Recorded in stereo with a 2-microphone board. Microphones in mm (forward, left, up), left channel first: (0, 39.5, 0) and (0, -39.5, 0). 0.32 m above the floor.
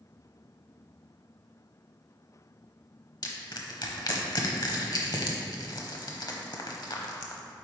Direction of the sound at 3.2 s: 60° left (ahead or behind).